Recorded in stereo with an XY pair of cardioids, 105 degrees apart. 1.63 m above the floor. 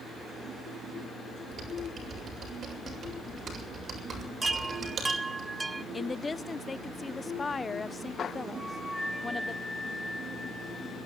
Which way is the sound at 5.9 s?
25° left.